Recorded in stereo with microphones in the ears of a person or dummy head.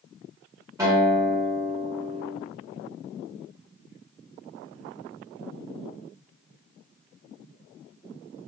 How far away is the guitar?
About 1.6 m.